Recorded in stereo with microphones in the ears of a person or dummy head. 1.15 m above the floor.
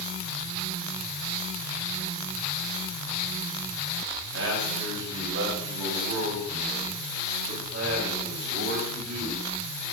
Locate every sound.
4.3 s a man speaking: 85° right, 7 m; by 9.5 s 65° right (ahead or behind), 7.5 m